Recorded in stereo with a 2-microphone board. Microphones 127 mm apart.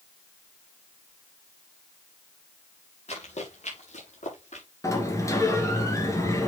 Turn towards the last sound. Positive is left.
turn(degrees=25)  # may be behind; listen again after turning